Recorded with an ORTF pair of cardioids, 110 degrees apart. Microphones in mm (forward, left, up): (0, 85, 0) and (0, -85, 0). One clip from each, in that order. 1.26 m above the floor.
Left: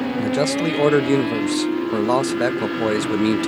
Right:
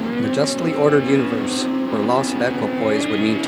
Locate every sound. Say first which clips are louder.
0.2 s a man speaking: right 1 dB; 5° right